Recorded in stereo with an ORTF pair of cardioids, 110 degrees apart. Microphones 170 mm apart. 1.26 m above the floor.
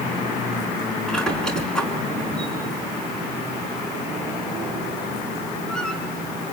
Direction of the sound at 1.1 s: 5° left.